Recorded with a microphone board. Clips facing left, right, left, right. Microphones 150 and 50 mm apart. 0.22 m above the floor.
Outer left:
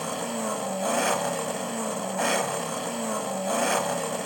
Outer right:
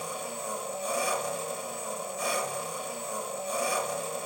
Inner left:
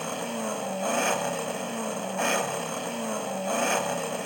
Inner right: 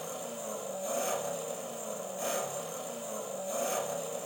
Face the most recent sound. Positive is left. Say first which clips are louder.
# outer left 7 dB, inner left 8 dB
turn(degrees=80)